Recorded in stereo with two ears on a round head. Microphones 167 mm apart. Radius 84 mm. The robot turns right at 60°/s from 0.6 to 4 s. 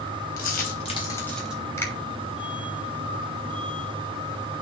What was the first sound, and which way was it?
A dropped coin, 50° left (ahead or behind).